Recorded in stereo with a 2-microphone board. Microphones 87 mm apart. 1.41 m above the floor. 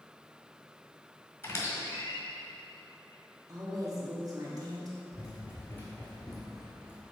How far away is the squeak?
About 1.4 m.